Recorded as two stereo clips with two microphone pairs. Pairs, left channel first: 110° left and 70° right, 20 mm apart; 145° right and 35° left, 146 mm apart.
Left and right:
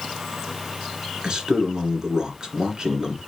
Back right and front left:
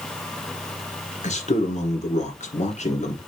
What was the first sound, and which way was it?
A man speaking, 125° right.